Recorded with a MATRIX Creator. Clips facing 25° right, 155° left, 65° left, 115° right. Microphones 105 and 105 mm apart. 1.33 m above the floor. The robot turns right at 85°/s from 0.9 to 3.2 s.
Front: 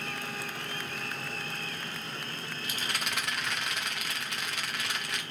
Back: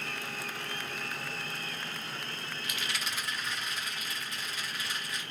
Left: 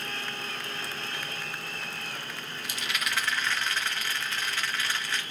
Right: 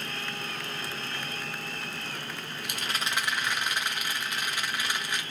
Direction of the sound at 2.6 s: 85° right.